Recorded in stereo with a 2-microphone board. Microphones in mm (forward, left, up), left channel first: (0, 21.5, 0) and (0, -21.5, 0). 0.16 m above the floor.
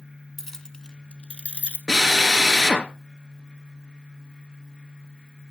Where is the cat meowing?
I don't hear a cat meowing.